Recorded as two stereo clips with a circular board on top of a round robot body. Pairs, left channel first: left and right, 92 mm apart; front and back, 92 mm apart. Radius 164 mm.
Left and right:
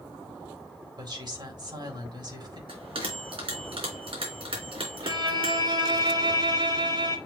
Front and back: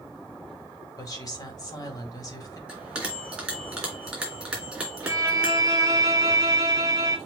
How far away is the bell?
About 3.5 m.